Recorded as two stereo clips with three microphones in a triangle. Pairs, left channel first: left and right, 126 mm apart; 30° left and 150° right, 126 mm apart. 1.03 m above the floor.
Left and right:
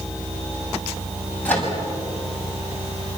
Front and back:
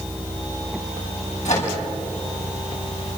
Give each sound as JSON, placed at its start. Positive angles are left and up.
{"t": 1.4, "sound": "a microwave", "azimuth_deg": 15, "distance_m": 6.5}